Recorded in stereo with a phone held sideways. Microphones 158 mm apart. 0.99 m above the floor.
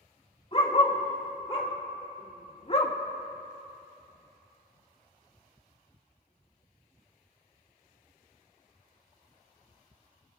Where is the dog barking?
35° left (ahead or behind), 2 m; by 2.9 s 40° left (ahead or behind), 0.8 m.